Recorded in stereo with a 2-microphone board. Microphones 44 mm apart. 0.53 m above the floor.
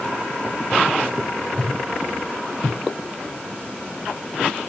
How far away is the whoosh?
About 1.0 m.